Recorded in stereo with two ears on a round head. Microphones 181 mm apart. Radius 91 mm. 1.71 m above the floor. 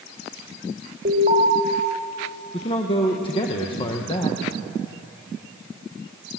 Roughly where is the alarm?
Right.